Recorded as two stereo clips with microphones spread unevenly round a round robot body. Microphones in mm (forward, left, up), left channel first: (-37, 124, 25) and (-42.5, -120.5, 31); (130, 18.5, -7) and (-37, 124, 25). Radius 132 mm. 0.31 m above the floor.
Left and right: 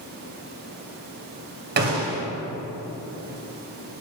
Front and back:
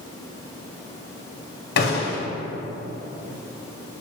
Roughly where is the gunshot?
Ahead right.